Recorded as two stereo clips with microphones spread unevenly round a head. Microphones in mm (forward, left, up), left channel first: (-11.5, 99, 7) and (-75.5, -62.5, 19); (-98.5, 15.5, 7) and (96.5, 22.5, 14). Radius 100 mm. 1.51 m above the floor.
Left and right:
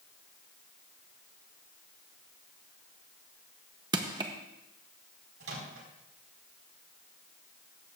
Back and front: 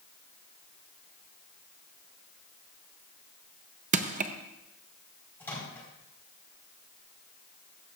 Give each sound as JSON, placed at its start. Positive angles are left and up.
{"t": 3.9, "sound": "crushing", "azimuth_deg": -45, "distance_m": 0.7}
{"t": 5.4, "sound": "a microwave", "azimuth_deg": -95, "distance_m": 4.5}